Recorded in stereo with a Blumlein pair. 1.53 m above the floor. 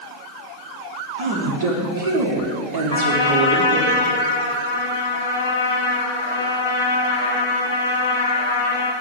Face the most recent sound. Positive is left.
turn(degrees=65)